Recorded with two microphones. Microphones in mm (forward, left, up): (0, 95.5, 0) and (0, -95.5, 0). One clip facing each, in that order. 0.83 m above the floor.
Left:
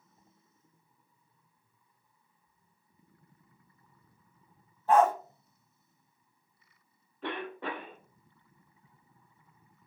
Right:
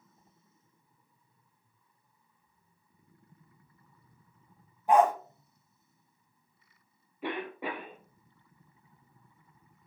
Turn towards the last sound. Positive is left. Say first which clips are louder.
# right 1 dB
turn(degrees=-10)  # may be behind; listen again after turning